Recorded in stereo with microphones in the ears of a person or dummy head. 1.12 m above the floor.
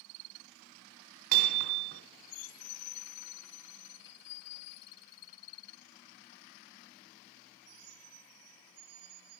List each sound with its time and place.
1.3 s hammering: 50° right (ahead or behind), 3 m